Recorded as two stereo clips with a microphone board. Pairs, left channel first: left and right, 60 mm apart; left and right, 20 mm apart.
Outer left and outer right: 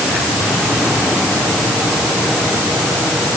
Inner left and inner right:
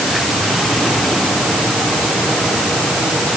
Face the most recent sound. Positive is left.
No sound to turn to.